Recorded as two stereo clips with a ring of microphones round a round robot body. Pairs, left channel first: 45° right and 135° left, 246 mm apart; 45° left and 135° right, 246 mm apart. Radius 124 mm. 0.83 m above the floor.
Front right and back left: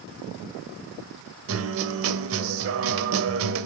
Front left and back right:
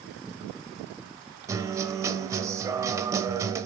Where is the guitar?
150° left, 0.8 m.